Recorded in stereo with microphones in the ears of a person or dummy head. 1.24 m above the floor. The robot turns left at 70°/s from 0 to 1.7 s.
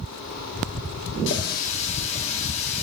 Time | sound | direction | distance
1.3 | a running tap | 75° left | 1.9 m